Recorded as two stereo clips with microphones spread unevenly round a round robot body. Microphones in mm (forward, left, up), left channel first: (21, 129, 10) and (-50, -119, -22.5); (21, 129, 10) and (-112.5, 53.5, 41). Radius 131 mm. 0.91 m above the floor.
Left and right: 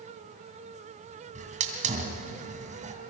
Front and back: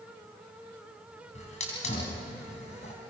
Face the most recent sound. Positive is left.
turn(degrees=-40)